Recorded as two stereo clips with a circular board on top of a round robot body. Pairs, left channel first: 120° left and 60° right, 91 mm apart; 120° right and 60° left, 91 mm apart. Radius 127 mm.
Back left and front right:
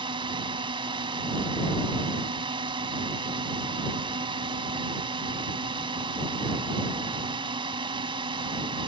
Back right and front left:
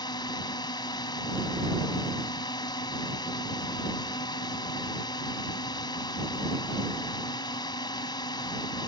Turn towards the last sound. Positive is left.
turn(degrees=-80)